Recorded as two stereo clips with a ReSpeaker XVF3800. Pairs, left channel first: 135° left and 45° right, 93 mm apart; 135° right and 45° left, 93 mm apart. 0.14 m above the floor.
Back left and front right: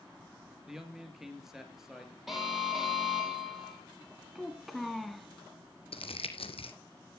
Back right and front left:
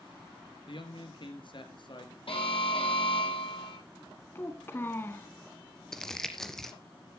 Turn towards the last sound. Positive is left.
turn(degrees=140)